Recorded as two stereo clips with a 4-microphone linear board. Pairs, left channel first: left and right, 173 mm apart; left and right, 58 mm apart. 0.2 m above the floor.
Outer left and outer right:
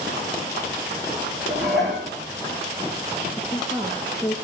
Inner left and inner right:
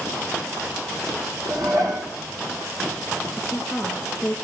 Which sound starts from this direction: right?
Dishes clattering, at 1.5 s.